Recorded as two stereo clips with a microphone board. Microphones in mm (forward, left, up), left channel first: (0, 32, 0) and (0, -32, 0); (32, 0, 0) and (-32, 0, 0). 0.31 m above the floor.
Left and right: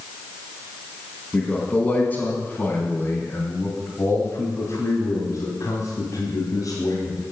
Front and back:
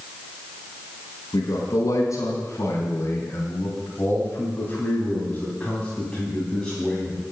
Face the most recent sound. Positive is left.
turn(degrees=90)